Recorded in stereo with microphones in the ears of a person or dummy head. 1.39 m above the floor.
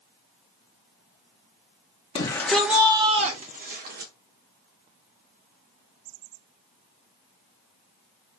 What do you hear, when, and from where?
2.1 s a shout: 25° left (ahead or behind), 0.5 m; by 4.1 s 50° right (ahead or behind), 1.1 m